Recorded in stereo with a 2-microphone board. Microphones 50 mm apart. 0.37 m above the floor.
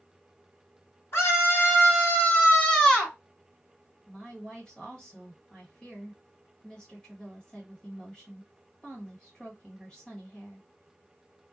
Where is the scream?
55° left (ahead or behind), 1.3 m; by 3.1 s 10° left (ahead or behind), 1.4 m.